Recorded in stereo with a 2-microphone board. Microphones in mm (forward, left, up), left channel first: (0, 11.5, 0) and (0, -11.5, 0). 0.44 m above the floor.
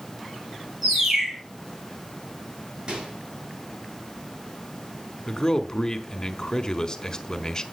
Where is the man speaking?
30° left (ahead or behind), 1.4 m.